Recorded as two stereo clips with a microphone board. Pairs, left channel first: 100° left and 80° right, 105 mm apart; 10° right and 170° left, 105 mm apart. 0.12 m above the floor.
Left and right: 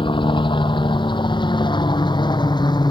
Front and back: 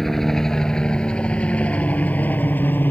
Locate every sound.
0.0 s a helicopter: 75° left; by 2.9 s 60° left